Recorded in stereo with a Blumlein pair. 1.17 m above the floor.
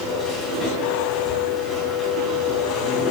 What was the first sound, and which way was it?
A machine running, 10° left.